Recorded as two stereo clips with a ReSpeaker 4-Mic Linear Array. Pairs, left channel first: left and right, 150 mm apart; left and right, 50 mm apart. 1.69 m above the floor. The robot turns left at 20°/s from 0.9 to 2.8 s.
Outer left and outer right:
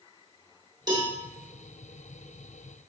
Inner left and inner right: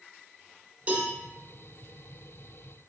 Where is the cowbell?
30° right (ahead or behind), 1.0 m.